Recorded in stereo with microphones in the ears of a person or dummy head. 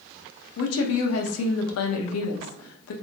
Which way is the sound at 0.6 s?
85° left.